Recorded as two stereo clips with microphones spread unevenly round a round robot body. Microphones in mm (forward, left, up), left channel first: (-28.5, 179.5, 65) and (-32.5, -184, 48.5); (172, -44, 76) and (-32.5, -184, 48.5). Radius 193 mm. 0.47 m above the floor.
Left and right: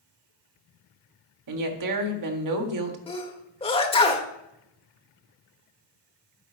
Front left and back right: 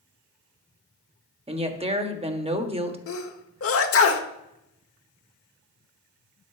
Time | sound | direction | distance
1.5 | a woman speaking | 90° right | 1.8 m
3.1 | a sneeze | 15° left | 1.6 m